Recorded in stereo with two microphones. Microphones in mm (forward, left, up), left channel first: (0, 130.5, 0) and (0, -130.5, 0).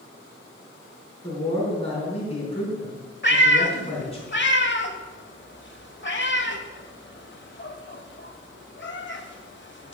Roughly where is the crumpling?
No crumpling in this recording.